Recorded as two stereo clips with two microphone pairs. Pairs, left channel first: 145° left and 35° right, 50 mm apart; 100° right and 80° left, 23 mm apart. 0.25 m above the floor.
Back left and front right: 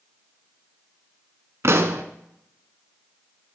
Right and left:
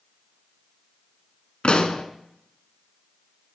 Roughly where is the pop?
Ahead right.